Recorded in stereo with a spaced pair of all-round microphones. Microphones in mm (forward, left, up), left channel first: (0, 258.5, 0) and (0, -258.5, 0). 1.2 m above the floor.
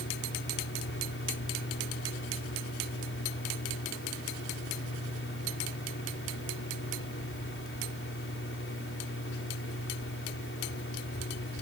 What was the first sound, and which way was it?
A fan, 25° left (ahead or behind).